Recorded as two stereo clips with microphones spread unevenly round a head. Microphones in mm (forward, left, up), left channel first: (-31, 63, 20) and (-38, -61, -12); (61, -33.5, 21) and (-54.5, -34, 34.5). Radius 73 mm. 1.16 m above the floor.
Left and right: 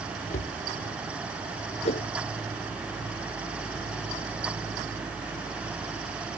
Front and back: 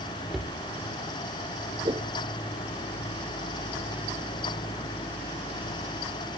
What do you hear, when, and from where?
0.3 s a cupboard door: 95° left
1.9 s a whoosh: 120° left